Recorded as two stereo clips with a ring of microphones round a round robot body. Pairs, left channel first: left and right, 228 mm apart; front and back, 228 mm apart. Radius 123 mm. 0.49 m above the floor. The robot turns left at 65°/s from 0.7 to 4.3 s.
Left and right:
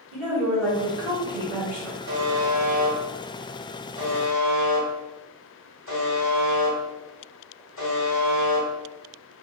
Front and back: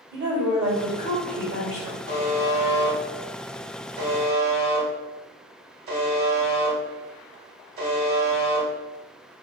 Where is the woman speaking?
100° right, 1.8 m; by 2.0 s 175° left, 1.8 m.